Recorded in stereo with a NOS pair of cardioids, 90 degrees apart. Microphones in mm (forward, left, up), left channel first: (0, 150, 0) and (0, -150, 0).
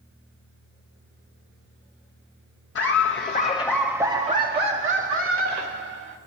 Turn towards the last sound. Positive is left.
turn(degrees=-60)